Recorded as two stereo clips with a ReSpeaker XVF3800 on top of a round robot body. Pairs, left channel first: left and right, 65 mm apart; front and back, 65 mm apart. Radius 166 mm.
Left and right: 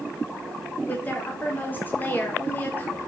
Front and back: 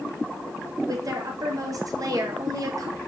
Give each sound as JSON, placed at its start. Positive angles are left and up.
{"t": 0.9, "sound": "a woman speaking", "azimuth_deg": 150, "distance_m": 1.7}